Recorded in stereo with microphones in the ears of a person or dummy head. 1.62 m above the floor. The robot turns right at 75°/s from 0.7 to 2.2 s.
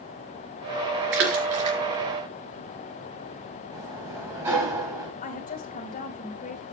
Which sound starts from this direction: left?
A woman speaking, at 5.2 s.